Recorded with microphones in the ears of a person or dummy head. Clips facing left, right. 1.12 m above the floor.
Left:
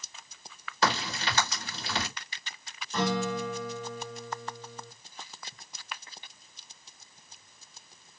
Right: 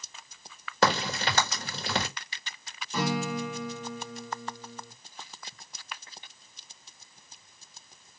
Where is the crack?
40° right (ahead or behind), 1.6 m.